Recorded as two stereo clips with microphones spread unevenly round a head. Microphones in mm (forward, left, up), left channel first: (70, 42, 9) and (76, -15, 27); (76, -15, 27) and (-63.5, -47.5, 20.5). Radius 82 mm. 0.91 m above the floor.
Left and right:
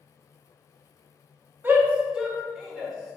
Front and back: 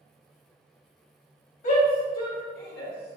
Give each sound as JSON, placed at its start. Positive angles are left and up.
{"t": 1.6, "sound": "a shout", "azimuth_deg": -20, "distance_m": 1.3}